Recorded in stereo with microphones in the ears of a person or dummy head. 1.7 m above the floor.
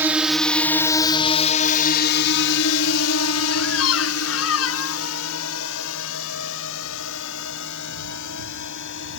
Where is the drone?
10° right (ahead or behind); by 9.2 s 70° left (ahead or behind).